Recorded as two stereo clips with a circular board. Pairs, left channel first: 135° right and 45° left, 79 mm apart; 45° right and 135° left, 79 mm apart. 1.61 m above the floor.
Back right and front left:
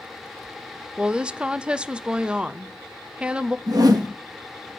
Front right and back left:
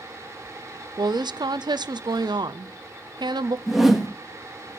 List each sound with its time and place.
1.0 s a woman speaking: 120° left, 0.5 m
3.7 s a whoosh: 50° left, 1.4 m